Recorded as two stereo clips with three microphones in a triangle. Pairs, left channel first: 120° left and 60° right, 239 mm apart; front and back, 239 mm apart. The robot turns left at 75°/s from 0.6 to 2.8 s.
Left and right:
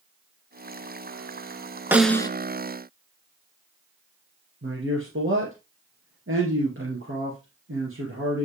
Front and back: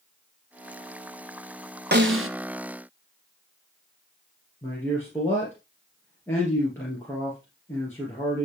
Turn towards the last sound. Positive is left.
turn(degrees=-80)